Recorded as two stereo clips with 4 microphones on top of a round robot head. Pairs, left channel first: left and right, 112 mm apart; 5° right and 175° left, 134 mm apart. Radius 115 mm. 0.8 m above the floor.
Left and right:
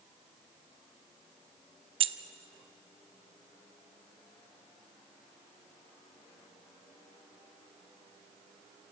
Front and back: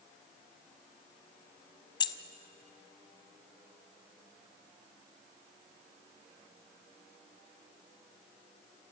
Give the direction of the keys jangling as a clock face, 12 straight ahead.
2 o'clock.